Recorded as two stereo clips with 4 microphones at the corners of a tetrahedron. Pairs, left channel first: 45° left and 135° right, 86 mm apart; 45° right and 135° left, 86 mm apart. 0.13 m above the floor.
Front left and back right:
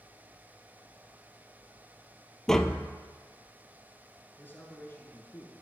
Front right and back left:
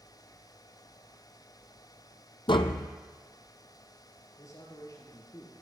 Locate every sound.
2.5 s tapping: 40° right, 0.6 m
4.4 s a man speaking: 10° right, 2 m